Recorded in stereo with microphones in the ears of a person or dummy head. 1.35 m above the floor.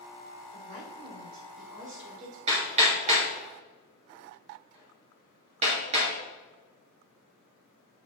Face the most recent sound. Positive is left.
turn(degrees=-35)  # may be behind; listen again after turning